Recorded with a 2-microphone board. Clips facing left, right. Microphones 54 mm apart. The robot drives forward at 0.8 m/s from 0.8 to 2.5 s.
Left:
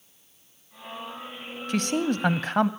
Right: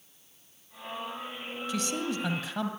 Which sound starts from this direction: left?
A man speaking, at 1.7 s.